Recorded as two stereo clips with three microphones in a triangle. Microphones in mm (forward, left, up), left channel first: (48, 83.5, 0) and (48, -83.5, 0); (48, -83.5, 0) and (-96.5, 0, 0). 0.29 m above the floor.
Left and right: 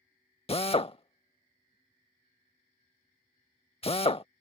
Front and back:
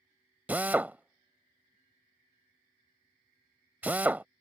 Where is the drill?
80° left.